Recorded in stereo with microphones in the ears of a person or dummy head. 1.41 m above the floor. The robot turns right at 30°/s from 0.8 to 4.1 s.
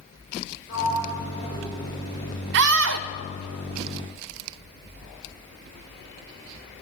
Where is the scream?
70° right (ahead or behind), 0.7 m; by 3.1 s 80° right, 0.7 m.